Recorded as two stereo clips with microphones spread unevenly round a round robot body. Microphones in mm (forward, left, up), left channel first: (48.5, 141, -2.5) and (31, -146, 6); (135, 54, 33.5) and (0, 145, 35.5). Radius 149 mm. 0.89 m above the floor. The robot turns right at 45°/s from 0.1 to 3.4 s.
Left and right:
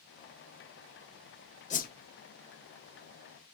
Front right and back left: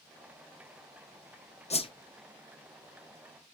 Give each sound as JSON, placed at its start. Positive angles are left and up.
{"t": 1.7, "sound": "a whoosh", "azimuth_deg": 20, "distance_m": 0.7}